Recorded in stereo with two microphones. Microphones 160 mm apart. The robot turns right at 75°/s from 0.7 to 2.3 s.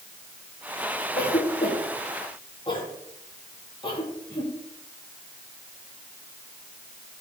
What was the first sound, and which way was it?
A cough, 60° left (ahead or behind).